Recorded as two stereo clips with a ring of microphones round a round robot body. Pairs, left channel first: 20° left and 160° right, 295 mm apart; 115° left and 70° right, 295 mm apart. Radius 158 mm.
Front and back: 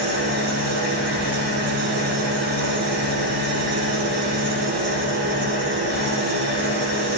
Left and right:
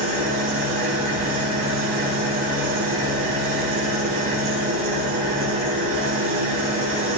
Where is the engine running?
115° right, 6 m.